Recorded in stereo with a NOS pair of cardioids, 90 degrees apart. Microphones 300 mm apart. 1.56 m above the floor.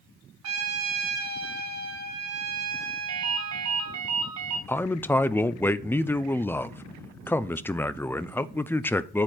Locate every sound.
0.4 s a trumpet: 70° right, 4 m
3.1 s a ringtone: 70° right, 3.5 m
4.7 s a man speaking: 5° left, 0.7 m